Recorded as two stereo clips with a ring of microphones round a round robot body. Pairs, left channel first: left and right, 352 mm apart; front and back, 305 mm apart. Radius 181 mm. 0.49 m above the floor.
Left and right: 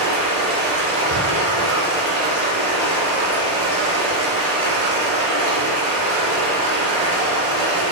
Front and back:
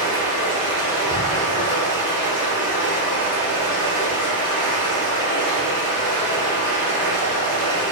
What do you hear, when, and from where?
0.0 s running water: 75° right, 1.5 m